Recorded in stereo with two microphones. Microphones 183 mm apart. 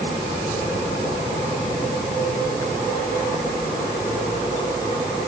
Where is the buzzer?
No buzzer in this recording.